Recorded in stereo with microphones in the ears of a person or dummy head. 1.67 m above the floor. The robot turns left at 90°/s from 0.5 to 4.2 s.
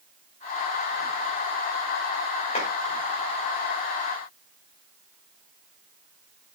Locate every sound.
2.5 s a clap: 30° left (ahead or behind), 2 m; by 2.6 s 40° left (ahead or behind), 2 m